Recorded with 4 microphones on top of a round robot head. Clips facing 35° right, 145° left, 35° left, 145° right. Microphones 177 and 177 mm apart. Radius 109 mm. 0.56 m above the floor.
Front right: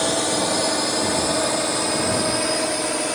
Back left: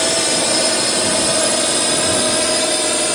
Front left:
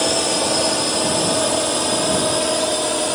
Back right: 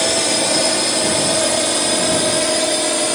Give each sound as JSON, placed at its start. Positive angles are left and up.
{"t": 0.0, "sound": "a drone", "azimuth_deg": 155}